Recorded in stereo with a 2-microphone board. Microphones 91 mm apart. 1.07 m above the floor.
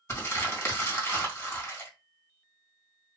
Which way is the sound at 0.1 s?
30° left (ahead or behind).